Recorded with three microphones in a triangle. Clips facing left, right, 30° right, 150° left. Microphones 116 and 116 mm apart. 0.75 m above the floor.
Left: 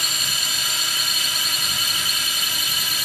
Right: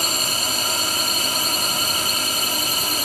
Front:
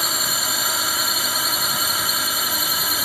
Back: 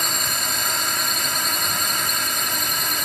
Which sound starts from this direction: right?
A drone, at 0.0 s.